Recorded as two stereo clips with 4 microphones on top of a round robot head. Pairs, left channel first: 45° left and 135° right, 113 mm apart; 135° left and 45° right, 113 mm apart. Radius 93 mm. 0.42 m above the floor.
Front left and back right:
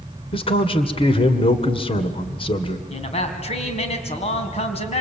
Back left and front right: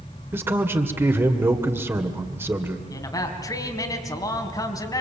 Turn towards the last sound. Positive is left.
turn(degrees=75)